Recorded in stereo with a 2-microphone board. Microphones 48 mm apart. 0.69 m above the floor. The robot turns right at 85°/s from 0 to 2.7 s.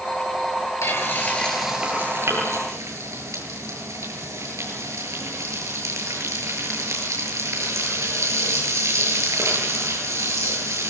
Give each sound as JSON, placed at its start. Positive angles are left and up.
{"t": 0.8, "sound": "frying", "azimuth_deg": 110, "distance_m": 9.5}